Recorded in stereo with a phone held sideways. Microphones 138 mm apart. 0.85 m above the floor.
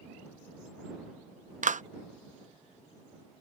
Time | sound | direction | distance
1.6 | a clap | 70° right (ahead or behind) | ?